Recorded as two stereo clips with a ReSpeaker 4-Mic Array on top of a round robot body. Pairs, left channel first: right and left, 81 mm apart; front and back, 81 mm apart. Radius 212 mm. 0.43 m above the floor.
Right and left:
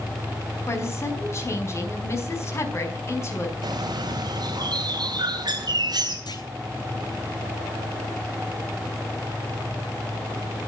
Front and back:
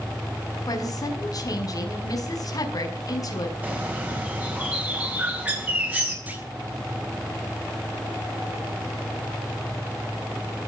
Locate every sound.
0.7 s a woman speaking: 40° right, 5 m
3.6 s a bird: 115° left, 4.5 m
6.3 s a clunk: 110° right, 4 m